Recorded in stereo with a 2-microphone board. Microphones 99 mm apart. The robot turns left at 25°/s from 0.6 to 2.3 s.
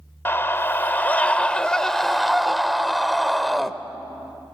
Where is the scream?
40° left, 0.9 m; by 3.7 s straight ahead, 0.9 m.